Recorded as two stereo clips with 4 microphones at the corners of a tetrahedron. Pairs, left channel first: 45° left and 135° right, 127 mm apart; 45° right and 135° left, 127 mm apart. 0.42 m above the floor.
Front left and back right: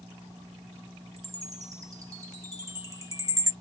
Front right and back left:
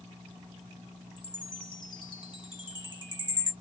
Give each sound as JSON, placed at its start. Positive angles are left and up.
{"t": 1.2, "sound": "a chime", "azimuth_deg": -80, "distance_m": 1.2}